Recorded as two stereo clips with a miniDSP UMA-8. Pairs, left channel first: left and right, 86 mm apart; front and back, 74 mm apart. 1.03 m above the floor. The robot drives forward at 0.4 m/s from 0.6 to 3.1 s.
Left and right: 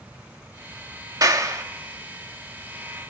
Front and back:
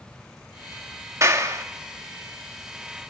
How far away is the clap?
About 2 m.